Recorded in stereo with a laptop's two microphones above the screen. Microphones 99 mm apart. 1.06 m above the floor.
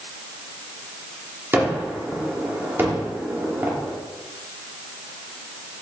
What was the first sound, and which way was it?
A gunshot, 25° right (ahead or behind).